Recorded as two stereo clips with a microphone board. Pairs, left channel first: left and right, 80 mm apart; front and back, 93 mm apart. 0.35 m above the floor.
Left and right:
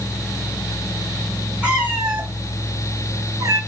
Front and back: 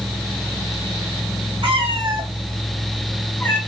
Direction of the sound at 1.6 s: 165° right.